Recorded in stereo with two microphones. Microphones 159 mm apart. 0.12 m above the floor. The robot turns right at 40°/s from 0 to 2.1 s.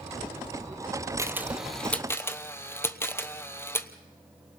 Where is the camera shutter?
20° right (ahead or behind), 1.0 m; by 3.9 s 15° left (ahead or behind), 1.0 m.